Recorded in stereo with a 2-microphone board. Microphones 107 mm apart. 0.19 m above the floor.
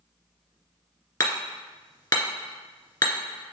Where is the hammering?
40° left (ahead or behind), 2 m.